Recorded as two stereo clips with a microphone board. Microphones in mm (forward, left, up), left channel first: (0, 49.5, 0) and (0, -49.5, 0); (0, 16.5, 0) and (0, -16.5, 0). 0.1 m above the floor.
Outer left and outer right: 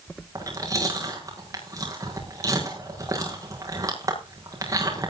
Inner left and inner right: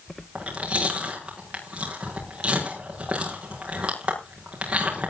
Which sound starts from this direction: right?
Chewing, at 0.3 s.